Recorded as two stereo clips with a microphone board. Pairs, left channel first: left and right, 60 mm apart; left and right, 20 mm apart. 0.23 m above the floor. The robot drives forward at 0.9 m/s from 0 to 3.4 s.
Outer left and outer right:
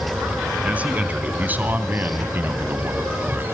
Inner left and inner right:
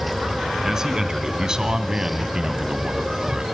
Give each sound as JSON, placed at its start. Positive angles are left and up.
{"t": 0.6, "sound": "a man speaking", "side_deg": -25, "distance_m": 2.5}